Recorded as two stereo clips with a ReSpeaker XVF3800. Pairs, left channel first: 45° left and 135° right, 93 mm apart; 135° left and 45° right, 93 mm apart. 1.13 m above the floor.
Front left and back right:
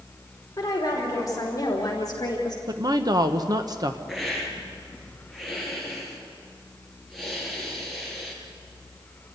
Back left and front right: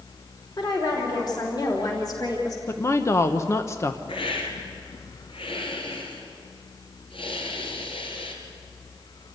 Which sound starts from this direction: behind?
A woman speaking, at 2.7 s.